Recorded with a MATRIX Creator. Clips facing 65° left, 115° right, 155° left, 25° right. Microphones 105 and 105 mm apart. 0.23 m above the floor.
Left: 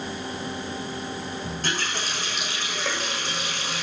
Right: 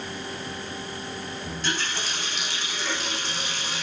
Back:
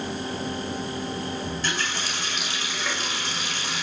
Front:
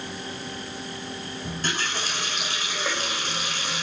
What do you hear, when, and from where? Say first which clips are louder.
1.4 s a running tap: right 1 dB, back 1 dB; 25° left, 9 m